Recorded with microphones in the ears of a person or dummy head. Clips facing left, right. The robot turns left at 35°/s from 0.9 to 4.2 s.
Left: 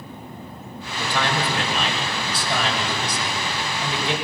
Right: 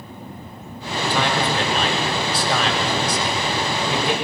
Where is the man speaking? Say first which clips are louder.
Right 3 dB; 5° right, 4.5 m; by 4.1 s 115° right, 4.5 m.